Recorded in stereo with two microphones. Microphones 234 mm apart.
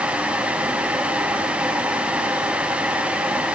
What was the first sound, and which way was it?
Only background noise.